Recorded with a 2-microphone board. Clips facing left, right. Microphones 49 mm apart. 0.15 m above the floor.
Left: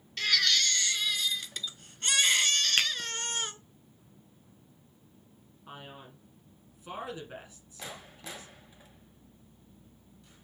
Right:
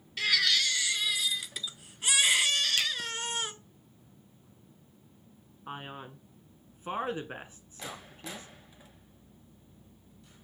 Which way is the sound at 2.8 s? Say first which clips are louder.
Left 3 dB; 50° left (ahead or behind).